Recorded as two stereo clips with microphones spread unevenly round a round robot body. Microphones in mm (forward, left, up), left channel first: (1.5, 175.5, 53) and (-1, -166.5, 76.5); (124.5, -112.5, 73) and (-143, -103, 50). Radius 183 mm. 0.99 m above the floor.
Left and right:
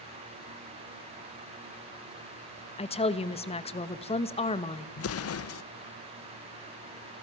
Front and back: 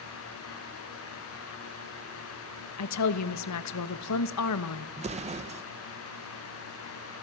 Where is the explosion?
120° left, 0.7 m.